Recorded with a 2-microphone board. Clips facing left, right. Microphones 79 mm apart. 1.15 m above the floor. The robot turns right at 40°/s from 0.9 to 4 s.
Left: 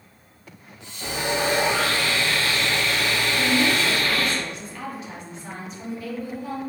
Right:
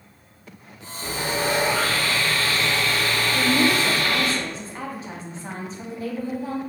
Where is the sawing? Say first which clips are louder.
Left 1 dB; 75° left, 1.4 m; by 4.3 s 165° right, 1.4 m.